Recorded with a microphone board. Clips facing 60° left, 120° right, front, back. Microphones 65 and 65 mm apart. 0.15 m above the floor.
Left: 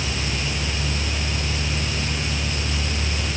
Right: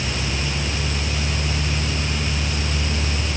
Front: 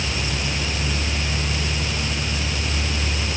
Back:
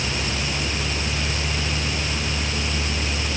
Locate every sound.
Only background noise.